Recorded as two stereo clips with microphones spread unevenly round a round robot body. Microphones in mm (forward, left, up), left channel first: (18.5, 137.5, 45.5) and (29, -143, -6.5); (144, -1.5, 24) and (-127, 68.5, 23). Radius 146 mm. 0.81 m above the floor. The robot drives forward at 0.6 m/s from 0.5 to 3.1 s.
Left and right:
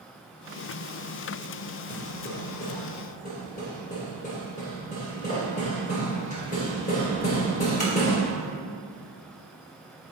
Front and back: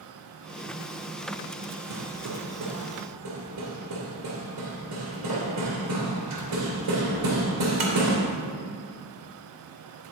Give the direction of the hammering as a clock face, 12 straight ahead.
7 o'clock.